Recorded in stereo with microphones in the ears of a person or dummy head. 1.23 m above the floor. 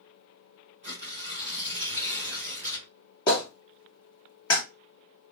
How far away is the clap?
About 1.3 m.